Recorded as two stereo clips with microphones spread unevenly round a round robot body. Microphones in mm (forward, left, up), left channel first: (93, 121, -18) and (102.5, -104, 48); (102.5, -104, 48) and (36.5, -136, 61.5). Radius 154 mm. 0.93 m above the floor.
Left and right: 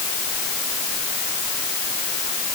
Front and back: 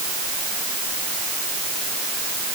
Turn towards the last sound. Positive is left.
No sound to turn to.